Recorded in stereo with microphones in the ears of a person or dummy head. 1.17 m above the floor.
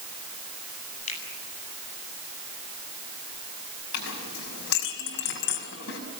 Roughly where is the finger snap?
Left.